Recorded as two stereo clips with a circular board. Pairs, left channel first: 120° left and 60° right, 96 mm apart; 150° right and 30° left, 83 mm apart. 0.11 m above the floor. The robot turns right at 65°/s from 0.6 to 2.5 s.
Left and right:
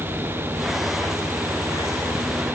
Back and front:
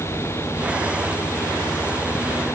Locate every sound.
Only background noise.